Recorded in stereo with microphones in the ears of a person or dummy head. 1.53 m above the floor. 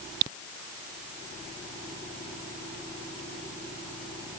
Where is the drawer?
I don't hear a drawer.